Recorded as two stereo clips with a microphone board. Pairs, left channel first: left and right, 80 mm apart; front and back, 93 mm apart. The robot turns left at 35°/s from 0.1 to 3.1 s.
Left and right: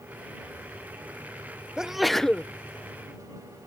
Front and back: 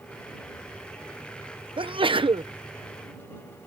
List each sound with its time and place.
1.8 s a sneeze: 170° right; by 2.5 s 165° left